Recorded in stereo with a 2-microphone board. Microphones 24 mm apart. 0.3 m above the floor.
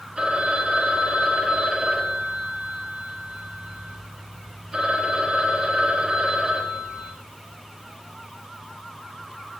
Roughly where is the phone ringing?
Right.